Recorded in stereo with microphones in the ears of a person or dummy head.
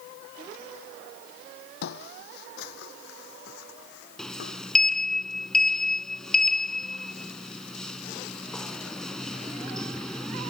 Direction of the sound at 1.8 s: 60° left (ahead or behind).